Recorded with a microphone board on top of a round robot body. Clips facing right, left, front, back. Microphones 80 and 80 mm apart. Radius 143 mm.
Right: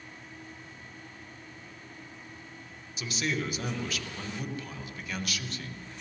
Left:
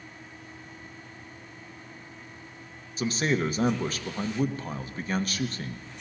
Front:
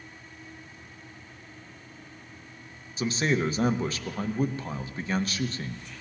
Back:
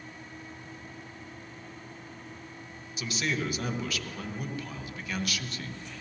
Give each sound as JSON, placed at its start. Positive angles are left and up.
{"t": 3.0, "sound": "a man speaking", "azimuth_deg": 50, "distance_m": 1.0}